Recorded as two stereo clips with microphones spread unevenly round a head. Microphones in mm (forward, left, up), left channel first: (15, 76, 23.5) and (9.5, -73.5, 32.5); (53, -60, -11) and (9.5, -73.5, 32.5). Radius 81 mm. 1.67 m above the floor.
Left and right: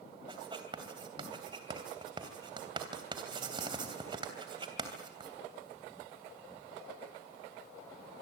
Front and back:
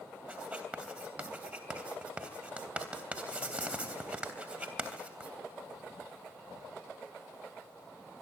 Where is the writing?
150° right, 3 m.